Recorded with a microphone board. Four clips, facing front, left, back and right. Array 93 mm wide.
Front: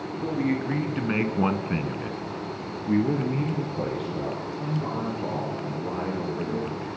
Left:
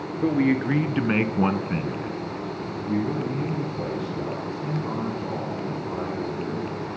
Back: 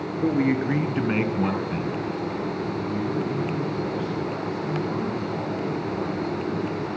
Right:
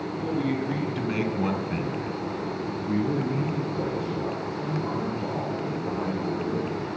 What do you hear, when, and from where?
0.2 s a man speaking: 125° left, 2.5 m; by 7.0 s 25° right, 8.5 m